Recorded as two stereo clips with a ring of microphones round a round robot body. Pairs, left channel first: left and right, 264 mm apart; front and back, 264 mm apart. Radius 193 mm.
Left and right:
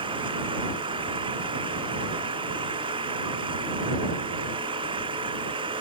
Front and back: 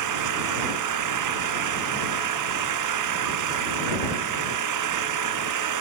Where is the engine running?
170° right.